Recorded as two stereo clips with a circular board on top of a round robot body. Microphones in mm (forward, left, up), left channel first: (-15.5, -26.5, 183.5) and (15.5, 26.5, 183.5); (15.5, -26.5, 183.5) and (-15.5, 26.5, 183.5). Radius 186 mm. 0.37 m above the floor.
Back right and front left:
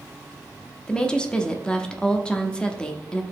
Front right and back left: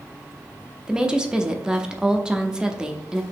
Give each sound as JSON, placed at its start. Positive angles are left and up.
{"t": 0.9, "sound": "a woman speaking", "azimuth_deg": -175, "distance_m": 0.8}